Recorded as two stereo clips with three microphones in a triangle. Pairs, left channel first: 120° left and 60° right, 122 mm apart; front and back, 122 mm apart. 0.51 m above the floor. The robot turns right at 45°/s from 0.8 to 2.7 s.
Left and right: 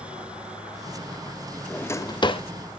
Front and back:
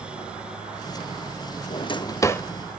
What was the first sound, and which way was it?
A drawer, 40° left.